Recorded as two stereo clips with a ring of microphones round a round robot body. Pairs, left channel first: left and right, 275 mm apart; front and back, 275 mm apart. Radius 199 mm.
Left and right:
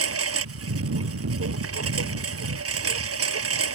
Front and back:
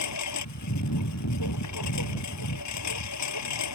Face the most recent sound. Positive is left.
turn(degrees=-50)